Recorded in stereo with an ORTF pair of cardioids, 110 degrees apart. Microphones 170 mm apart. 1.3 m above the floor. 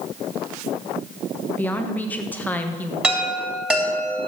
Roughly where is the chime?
Ahead.